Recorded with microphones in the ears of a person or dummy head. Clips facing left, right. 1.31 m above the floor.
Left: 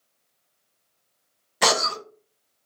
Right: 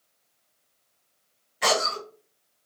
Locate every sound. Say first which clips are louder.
1.6 s a cough: left 1 dB; 80° left, 0.6 m